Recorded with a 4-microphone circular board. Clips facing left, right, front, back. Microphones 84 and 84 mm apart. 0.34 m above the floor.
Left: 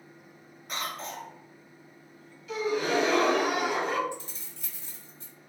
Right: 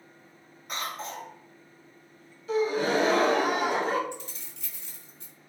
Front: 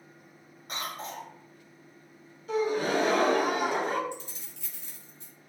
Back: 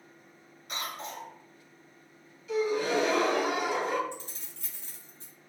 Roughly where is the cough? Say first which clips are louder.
Right 1 dB, front 1 dB; ahead.